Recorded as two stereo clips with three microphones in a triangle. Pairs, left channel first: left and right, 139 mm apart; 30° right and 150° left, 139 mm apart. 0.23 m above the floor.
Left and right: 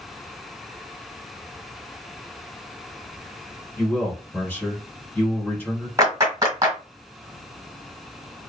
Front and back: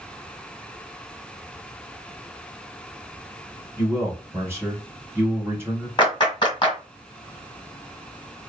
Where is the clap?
45° right, 1.4 m.